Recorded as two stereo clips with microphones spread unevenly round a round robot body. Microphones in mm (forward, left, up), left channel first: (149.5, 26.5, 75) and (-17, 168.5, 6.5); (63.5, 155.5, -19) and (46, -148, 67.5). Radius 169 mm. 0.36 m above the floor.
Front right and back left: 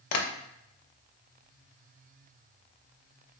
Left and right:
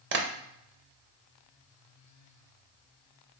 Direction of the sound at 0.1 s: 35° right.